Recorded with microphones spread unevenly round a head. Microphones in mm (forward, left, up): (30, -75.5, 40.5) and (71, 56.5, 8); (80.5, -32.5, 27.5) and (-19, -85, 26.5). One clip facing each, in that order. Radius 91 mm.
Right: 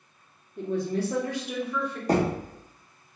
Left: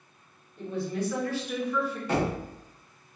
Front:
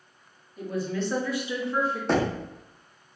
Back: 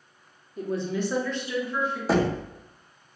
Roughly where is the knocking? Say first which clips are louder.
Right 5 dB, back 3 dB; ahead right.